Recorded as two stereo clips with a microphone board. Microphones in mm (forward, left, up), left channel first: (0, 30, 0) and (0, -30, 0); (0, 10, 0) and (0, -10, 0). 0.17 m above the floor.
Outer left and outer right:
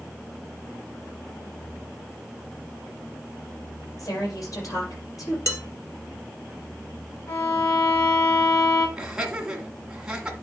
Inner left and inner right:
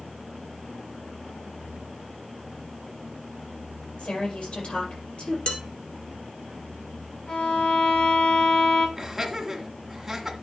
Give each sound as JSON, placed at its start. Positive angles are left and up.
{"t": 4.0, "sound": "a woman speaking", "side_deg": 75, "distance_m": 4.5}
{"t": 5.5, "sound": "dishes clattering", "side_deg": 55, "distance_m": 2.0}
{"t": 7.3, "sound": "a violin", "side_deg": 65, "distance_m": 6.0}
{"t": 9.0, "sound": "laughter", "side_deg": -15, "distance_m": 1.7}